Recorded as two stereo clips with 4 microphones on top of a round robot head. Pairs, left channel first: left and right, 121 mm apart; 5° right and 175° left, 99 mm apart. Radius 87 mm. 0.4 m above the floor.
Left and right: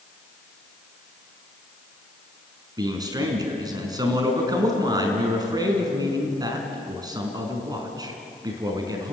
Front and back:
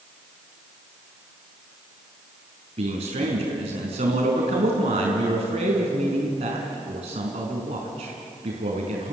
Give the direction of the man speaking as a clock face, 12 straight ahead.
5 o'clock.